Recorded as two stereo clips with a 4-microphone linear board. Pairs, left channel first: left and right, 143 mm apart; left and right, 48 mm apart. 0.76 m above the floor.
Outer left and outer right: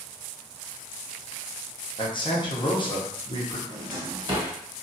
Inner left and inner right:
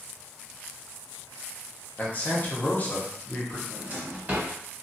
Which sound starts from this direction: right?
A drawer, at 3.7 s.